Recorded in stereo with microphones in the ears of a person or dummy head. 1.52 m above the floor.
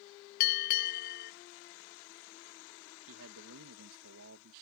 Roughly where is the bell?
Left.